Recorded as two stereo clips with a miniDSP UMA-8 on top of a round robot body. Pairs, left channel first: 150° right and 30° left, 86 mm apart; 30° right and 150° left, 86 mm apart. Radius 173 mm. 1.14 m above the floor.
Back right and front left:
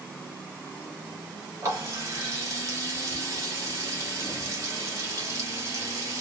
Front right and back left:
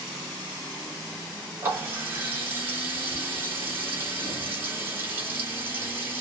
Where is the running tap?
85° left, 1.7 m.